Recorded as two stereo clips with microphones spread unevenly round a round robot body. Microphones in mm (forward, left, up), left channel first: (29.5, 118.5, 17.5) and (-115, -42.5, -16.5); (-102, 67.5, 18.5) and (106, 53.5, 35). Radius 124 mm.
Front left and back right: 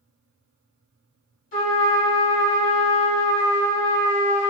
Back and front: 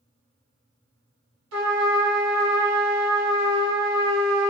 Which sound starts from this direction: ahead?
A trumpet, at 1.5 s.